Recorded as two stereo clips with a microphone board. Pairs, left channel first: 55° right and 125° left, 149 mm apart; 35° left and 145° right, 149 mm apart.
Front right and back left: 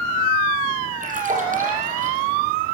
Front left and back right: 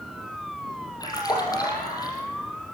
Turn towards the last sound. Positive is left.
turn(degrees=100)